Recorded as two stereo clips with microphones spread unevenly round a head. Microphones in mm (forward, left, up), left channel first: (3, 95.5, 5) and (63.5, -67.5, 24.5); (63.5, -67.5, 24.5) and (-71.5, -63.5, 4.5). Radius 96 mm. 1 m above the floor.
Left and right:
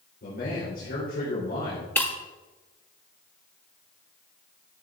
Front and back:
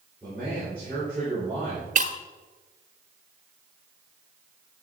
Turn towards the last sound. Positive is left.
turn(degrees=-165)